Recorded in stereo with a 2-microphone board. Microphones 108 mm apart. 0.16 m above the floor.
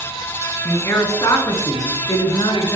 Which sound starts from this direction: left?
A man speaking, at 0.7 s.